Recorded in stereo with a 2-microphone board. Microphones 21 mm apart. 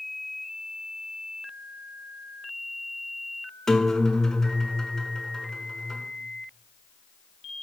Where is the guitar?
25° left (ahead or behind), 0.8 m.